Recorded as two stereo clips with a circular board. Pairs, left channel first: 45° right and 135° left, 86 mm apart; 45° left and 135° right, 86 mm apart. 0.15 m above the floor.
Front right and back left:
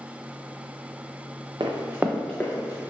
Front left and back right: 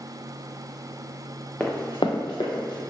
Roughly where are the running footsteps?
Behind left.